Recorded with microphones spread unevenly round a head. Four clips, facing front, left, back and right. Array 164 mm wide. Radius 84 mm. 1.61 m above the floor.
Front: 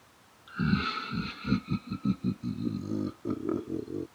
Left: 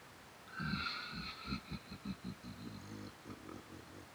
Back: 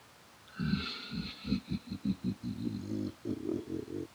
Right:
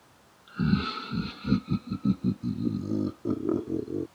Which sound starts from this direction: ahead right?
Laughter, at 0.5 s.